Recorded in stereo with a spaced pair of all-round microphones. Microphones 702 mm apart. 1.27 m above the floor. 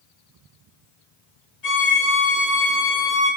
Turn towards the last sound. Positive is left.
turn(degrees=55)  # may be behind; listen again after turning